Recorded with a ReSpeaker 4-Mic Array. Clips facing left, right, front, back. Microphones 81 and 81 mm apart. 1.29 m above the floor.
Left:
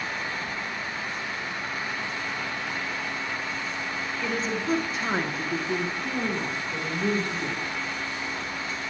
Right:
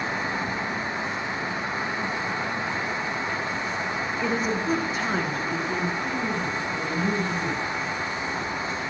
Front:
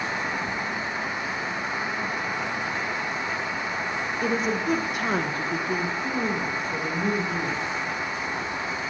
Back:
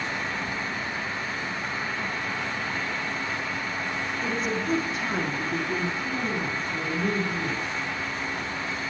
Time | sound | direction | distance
4.2 | a woman speaking | 25° right | 1.2 m